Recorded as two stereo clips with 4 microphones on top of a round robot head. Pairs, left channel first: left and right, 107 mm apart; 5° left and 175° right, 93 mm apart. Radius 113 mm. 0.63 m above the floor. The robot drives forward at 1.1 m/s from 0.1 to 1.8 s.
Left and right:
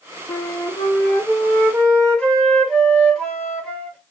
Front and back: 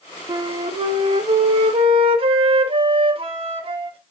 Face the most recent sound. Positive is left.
turn(degrees=170)